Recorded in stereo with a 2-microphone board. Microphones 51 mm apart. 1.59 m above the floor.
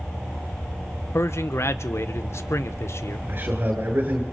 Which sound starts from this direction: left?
A man speaking, at 1.1 s.